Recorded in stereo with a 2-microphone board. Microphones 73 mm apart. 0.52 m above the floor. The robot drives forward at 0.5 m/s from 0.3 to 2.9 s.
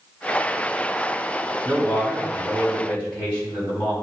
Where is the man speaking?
15° left (ahead or behind), 4.5 m.